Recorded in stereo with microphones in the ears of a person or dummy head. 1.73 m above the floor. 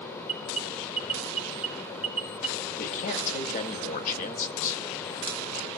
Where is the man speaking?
40° left (ahead or behind), 1.7 m.